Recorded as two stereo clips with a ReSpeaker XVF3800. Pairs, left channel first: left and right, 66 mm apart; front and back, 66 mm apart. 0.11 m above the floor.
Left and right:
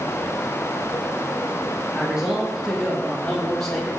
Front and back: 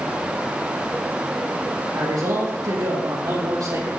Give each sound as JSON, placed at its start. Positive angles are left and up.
{"t": 1.9, "sound": "a man speaking", "azimuth_deg": -170, "distance_m": 6.5}